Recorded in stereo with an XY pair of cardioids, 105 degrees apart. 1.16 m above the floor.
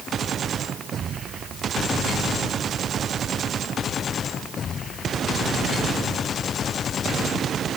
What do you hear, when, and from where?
Only background noise.